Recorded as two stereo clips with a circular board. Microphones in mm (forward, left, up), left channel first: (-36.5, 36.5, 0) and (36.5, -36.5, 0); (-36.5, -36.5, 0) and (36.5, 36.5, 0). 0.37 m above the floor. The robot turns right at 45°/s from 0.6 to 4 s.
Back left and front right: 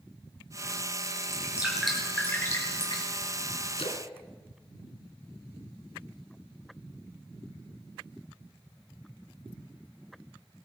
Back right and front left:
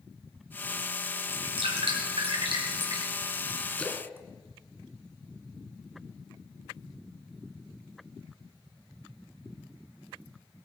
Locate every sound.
1.3 s dripping: 20° left, 5 m; by 3.1 s 100° left, 5 m
3.8 s a splash: 145° left, 1.8 m; by 5.8 s 155° left, 1.8 m